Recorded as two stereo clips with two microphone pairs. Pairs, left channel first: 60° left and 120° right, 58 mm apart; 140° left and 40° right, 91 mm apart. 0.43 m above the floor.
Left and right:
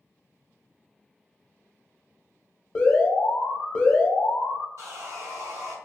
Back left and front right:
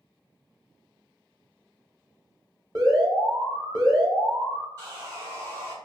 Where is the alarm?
5° right, 0.9 m.